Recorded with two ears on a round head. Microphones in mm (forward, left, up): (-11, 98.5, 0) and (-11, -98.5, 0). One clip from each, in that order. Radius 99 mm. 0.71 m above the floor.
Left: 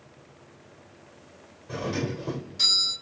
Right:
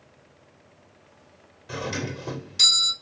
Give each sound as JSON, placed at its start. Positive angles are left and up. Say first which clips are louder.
{"t": 1.7, "sound": "a doorbell", "louder": "even", "side_deg": -70, "distance_m": 2.5}